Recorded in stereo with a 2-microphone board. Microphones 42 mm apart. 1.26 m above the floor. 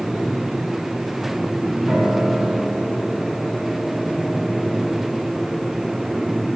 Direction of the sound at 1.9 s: 25° right (ahead or behind).